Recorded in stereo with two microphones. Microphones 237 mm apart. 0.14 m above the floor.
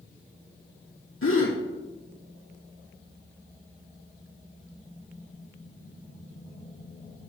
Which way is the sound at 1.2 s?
65° left (ahead or behind).